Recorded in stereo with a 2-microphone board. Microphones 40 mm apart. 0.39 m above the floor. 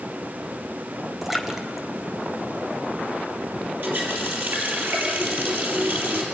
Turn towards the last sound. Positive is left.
turn(degrees=-60)  # may be behind; listen again after turning